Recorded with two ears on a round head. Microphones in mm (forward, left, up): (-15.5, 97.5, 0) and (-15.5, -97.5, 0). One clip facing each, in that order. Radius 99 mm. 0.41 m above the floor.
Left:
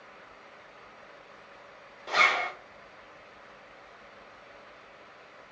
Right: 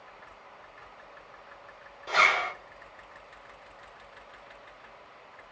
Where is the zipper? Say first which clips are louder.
Even; centre (ahead or behind), 0.9 m.